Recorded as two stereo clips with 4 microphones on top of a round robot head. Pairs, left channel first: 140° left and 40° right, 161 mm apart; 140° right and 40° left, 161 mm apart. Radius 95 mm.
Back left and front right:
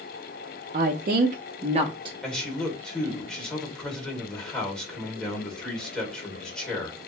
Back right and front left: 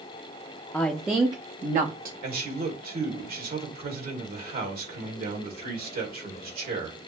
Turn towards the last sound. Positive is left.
turn(degrees=55)